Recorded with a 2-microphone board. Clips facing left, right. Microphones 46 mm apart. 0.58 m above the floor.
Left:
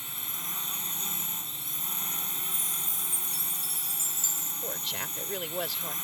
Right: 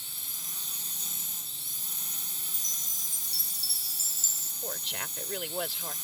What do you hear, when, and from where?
0.0 s a drone: 35° left (ahead or behind)
2.5 s a chime: 20° left (ahead or behind)
4.6 s a woman speaking: 5° right (ahead or behind)